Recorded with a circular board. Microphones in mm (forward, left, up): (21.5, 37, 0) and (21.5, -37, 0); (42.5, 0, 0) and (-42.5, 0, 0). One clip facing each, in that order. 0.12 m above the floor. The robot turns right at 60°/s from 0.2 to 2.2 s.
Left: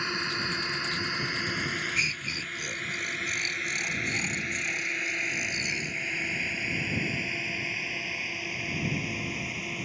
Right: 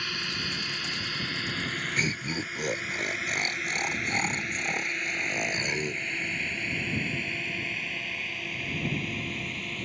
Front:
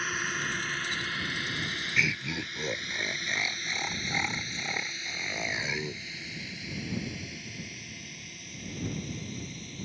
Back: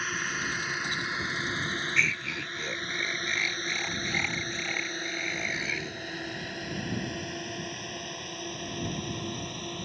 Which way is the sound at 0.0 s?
90° left.